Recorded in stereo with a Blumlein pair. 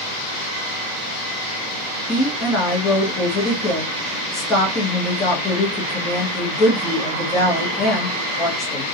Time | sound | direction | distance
2.1 | a woman speaking | 15° left | 1.3 m